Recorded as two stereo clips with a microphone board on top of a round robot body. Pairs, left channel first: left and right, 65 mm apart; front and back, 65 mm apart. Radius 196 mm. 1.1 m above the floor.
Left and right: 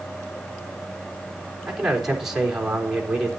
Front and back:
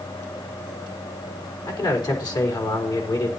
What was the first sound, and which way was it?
A man speaking, 5° right.